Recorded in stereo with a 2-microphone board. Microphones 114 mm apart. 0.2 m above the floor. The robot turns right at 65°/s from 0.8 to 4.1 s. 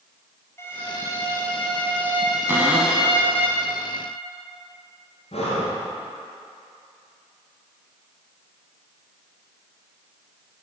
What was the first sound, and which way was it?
A violin, 25° left (ahead or behind).